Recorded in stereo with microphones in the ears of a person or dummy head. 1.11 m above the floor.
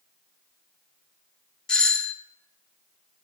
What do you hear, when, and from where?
1.7 s a doorbell: 5° left (ahead or behind), 0.6 m